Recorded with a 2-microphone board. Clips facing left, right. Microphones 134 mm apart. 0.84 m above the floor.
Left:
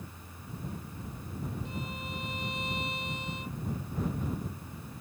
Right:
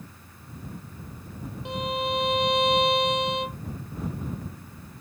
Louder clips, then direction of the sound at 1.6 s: Right 11 dB; 80° right.